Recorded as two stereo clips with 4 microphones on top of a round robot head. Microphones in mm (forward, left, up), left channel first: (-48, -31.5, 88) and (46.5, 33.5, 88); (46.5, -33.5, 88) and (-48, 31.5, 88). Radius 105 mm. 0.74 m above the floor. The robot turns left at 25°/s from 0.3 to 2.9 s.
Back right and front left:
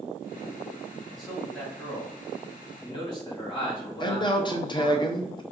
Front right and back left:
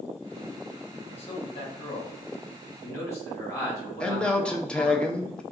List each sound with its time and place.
1.1 s a man speaking: 50° right, 2 m; by 5.0 s 95° right, 2 m
4.0 s a man speaking: 115° right, 0.9 m